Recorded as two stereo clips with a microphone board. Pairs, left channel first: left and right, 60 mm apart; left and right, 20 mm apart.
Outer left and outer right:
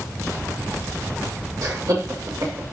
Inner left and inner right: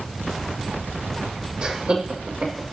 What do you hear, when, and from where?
1.6 s laughter: 70° right (ahead or behind), 6 m; by 2.6 s 75° right (ahead or behind), 7 m